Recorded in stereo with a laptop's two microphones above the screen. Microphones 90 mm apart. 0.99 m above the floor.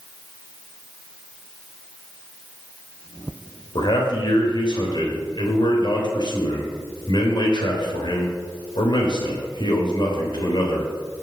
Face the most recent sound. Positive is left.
turn(degrees=55)  # may be behind; listen again after turning